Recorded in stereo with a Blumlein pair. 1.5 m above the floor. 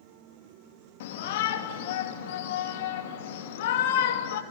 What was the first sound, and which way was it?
A shout, 50° left.